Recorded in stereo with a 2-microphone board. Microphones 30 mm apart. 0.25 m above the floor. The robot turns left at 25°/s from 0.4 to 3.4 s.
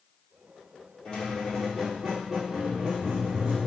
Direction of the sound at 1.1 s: 25° left.